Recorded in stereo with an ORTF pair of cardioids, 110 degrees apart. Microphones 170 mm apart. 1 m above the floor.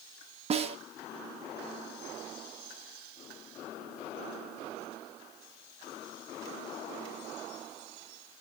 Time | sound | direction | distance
0.5 | a snare drum | 35° right | 1.1 m